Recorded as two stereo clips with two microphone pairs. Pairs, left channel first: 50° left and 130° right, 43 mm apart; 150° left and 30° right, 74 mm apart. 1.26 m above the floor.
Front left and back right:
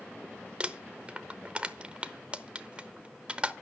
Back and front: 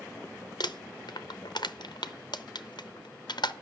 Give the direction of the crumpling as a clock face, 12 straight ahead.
7 o'clock.